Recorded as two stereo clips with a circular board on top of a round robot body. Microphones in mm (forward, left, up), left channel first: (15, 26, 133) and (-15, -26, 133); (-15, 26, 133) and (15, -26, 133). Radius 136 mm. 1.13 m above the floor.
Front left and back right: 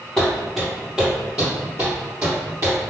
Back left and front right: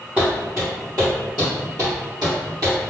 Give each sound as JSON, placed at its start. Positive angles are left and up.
{"t": 0.2, "sound": "footsteps", "azimuth_deg": 5, "distance_m": 1.1}